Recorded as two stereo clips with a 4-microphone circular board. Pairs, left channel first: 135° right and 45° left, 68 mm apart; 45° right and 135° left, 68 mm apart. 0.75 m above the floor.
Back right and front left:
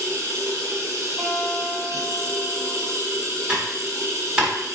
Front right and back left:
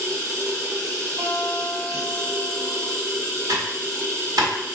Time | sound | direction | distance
0.0 | running water | 90° left | 1.3 m
1.2 | a guitar | 140° left | 1.4 m
3.5 | typing on a keyboard | 120° left | 1.6 m